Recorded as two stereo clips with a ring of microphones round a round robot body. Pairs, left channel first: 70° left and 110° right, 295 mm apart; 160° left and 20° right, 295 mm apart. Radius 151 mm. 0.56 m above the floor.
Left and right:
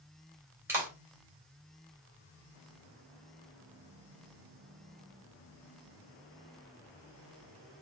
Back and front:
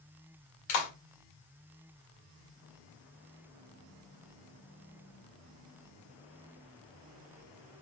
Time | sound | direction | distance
0.7 | a clap | 165° left | 2.0 m